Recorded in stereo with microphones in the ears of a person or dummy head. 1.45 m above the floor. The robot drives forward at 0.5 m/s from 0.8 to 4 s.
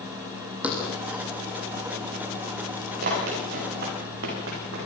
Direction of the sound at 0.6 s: 5° right (ahead or behind).